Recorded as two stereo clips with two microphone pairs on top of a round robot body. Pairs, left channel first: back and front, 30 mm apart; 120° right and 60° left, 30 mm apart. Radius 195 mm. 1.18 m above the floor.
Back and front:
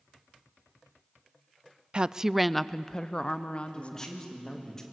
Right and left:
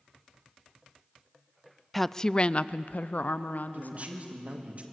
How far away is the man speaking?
About 2.5 m.